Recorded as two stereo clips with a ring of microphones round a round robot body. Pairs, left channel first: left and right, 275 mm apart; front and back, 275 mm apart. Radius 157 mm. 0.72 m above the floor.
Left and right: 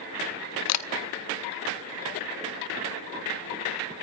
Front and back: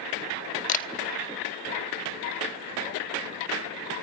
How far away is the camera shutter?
About 1.0 m.